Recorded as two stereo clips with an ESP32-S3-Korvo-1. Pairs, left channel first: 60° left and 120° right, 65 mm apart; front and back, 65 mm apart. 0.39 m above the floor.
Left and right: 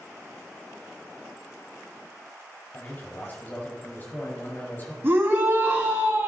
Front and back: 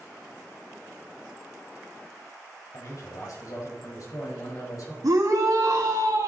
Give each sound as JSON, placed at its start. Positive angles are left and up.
{"t": 2.7, "sound": "a man speaking", "azimuth_deg": 5, "distance_m": 1.5}
{"t": 5.0, "sound": "a shout", "azimuth_deg": -175, "distance_m": 2.5}